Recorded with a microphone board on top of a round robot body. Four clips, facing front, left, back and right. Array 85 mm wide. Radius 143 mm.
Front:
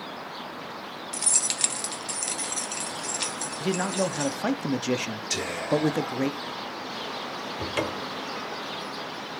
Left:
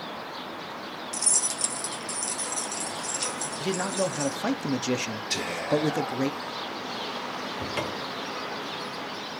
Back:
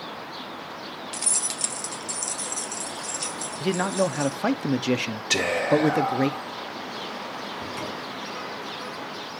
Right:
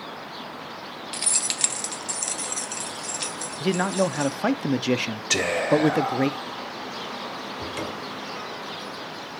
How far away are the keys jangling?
About 0.9 m.